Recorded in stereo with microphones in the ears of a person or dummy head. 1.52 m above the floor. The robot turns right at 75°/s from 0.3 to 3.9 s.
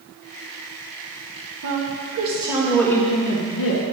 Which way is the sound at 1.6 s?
80° right.